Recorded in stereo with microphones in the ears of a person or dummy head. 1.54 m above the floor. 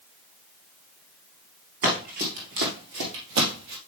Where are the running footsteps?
40° right (ahead or behind), 2 m; by 3.8 s 50° right (ahead or behind), 2.5 m.